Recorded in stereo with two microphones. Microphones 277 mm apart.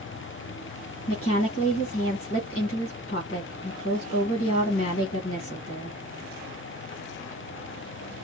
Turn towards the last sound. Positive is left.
turn(degrees=50)  # may be behind; listen again after turning